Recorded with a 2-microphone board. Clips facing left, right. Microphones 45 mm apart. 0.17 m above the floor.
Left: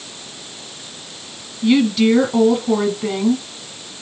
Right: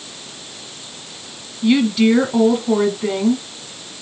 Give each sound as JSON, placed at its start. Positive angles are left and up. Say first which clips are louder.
{"t": 1.6, "sound": "a woman speaking", "louder": "even", "side_deg": -5, "distance_m": 1.3}